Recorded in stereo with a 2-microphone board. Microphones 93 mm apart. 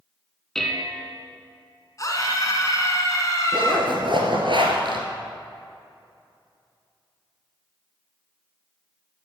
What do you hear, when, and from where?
0.6 s dishes clattering: 5° left (ahead or behind), 1.1 m
2.0 s a scream: 40° left (ahead or behind), 1.9 m
3.5 s a zipper: 65° right (ahead or behind), 1.8 m